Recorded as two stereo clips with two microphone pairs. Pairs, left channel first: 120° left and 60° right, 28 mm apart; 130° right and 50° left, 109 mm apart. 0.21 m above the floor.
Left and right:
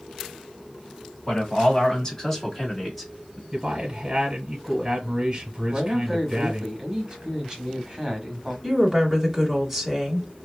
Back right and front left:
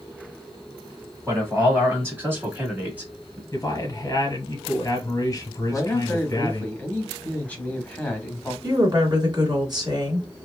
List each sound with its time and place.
1.3 s a man speaking: 105° left, 1.7 m; by 3.4 s 5° left, 1.4 m
3.5 s a man speaking: 105° right, 1.1 m
5.7 s a man speaking: 80° right, 1.1 m
8.6 s a woman speaking: 25° left, 1.4 m